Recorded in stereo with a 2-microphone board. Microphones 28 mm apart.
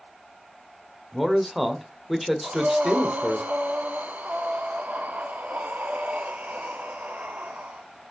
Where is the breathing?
75° right (ahead or behind), 0.9 m.